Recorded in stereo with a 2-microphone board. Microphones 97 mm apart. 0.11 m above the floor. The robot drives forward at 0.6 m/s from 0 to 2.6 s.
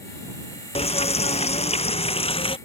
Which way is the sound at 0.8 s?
75° left (ahead or behind).